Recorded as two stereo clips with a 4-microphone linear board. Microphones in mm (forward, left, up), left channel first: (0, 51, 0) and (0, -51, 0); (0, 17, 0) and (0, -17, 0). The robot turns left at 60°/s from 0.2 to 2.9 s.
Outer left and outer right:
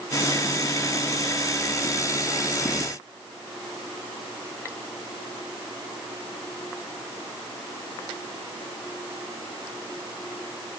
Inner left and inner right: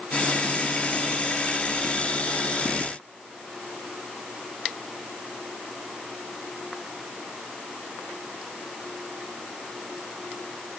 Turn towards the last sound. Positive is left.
No sound to turn to.